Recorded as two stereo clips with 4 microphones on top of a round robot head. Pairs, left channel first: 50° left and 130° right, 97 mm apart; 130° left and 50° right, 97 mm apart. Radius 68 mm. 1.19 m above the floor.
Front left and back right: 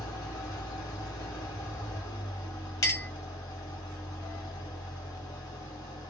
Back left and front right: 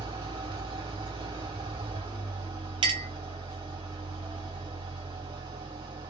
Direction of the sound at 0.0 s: 5° right.